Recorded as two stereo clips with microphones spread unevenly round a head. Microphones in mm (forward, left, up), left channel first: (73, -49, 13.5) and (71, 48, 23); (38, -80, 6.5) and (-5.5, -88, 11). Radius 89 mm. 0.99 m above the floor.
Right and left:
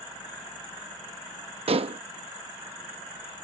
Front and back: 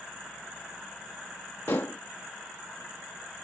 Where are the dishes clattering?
70° left.